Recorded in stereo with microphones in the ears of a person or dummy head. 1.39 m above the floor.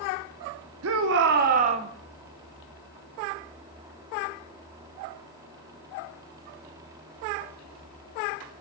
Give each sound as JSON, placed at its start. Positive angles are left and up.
{"t": 0.8, "sound": "a shout", "side_deg": -75, "distance_m": 1.0}